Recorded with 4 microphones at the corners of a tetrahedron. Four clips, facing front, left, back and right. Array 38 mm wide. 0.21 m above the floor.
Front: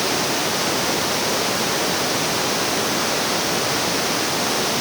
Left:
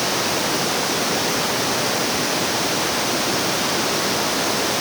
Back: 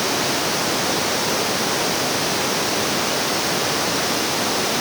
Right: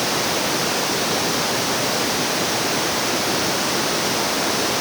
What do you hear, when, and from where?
Only background noise.